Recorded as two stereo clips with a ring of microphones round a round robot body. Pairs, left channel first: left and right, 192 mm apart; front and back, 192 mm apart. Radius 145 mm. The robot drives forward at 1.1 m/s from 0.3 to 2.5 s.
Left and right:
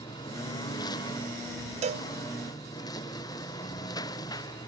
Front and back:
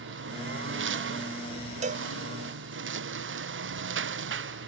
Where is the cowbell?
135° right; by 2.1 s 145° right.